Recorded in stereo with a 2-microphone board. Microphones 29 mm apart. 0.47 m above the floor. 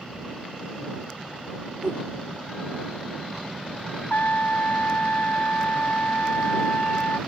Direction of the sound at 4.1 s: 85° left.